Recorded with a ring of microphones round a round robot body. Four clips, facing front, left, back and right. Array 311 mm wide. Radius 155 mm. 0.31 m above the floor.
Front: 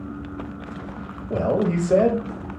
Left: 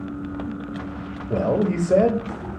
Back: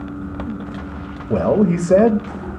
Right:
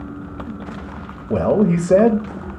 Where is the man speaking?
145° right, 1.0 m.